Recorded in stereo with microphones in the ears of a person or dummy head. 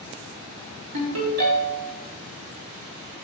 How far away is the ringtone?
About 2.5 m.